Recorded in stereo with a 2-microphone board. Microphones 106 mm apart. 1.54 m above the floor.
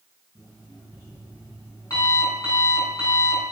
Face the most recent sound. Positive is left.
turn(degrees=35)  # may be behind; listen again after turning